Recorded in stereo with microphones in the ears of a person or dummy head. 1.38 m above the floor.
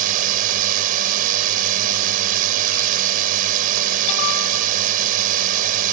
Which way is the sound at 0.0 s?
45° right (ahead or behind).